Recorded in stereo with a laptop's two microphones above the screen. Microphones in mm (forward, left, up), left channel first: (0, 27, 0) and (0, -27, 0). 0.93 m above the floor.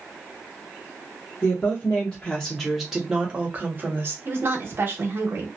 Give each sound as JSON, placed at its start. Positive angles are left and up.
{"t": 1.4, "sound": "a woman speaking", "side_deg": 35, "distance_m": 1.2}
{"t": 4.2, "sound": "a woman speaking", "side_deg": -40, "distance_m": 0.9}